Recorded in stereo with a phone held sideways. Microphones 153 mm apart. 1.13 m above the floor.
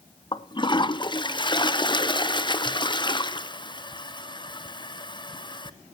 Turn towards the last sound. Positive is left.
turn(degrees=30)  # may be behind; listen again after turning